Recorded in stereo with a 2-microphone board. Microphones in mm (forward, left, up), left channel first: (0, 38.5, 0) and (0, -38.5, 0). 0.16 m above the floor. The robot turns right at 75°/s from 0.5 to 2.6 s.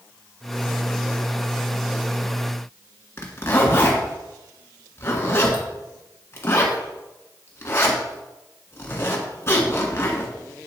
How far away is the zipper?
About 1.3 m.